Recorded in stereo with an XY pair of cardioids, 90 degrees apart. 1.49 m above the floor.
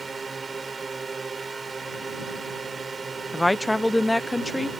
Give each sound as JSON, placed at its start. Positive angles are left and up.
{"t": 0.0, "sound": "a drone", "azimuth_deg": -30}
{"t": 3.3, "sound": "a woman speaking", "azimuth_deg": 10}